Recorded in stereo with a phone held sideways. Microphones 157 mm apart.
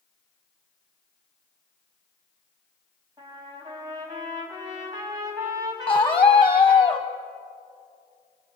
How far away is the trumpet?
About 6 m.